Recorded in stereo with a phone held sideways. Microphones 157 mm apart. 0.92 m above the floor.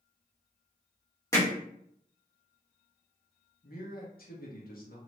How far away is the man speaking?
About 1.3 m.